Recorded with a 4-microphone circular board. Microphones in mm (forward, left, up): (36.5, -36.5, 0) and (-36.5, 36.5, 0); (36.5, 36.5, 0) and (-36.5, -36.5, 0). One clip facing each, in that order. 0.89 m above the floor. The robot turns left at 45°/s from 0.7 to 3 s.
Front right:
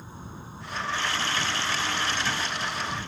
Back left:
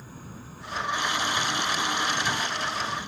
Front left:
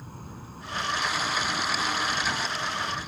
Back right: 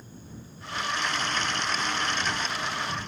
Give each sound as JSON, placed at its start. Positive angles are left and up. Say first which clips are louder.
{"t": 0.0, "sound": "an insect", "louder": "front right 1 dB, front left 3 dB", "azimuth_deg": 20}